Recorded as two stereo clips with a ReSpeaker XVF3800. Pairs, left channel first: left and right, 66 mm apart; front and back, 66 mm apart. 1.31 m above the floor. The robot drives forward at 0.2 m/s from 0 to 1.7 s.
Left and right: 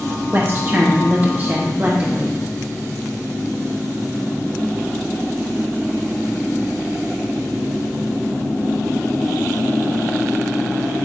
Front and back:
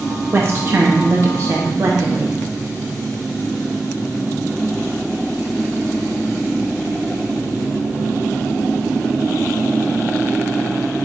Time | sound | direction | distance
0.3 | a woman speaking | 135° right | 0.8 m